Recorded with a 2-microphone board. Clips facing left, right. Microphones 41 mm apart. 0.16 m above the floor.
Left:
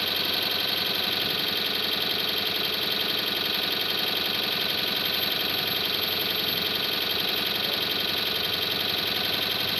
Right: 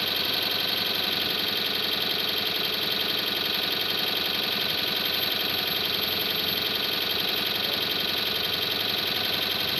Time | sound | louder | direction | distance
0.0 | an engine running | even | centre (ahead or behind) | ?